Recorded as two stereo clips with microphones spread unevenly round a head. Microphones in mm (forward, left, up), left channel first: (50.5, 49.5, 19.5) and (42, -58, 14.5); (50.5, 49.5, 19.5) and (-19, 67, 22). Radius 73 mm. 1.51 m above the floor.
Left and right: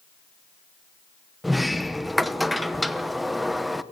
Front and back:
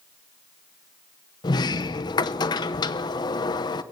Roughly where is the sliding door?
Ahead.